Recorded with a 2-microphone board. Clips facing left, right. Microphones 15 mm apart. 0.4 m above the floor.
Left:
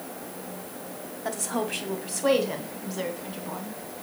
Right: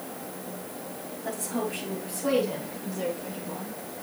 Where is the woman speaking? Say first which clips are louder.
Left 2 dB; 40° left (ahead or behind), 1.8 m; by 3.8 s 60° left (ahead or behind), 3 m.